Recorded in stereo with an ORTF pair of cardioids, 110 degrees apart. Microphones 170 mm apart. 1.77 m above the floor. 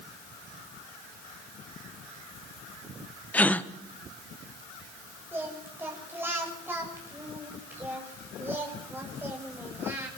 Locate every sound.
3.3 s a gasp: 10° left, 1.5 m
5.3 s singing: 15° right, 7.5 m